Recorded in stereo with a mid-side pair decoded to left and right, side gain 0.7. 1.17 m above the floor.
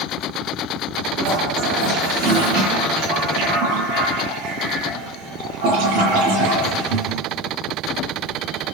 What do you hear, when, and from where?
1.2 s a toilet flushing: 65° right, 9.5 m